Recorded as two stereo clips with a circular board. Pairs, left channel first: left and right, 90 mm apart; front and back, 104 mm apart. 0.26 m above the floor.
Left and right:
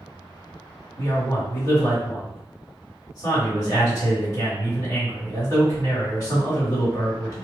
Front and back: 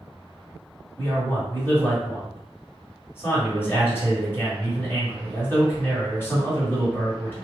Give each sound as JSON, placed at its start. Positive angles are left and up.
{"t": 1.0, "sound": "a man speaking", "azimuth_deg": 60, "distance_m": 1.6}